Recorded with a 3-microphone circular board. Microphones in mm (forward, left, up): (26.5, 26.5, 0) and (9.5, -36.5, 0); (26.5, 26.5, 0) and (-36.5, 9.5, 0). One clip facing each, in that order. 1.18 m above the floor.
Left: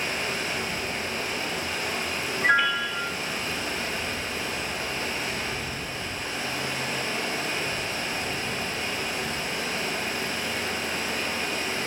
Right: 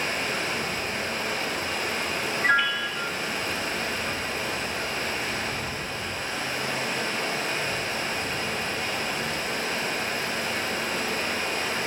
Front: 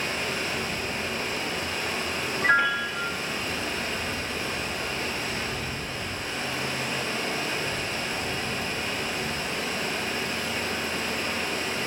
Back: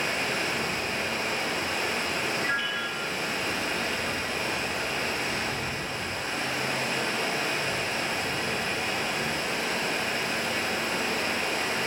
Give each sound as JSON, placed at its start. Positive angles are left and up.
{"t": 0.0, "sound": "running water", "azimuth_deg": -145, "distance_m": 4.5}
{"t": 2.4, "sound": "a piano", "azimuth_deg": -10, "distance_m": 1.0}